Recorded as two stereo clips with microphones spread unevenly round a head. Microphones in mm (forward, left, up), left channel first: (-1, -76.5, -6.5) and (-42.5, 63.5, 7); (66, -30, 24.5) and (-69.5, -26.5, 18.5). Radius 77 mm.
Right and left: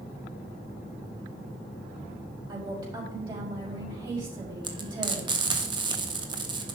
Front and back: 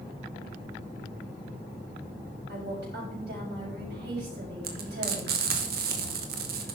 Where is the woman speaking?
175° left, 5.5 m.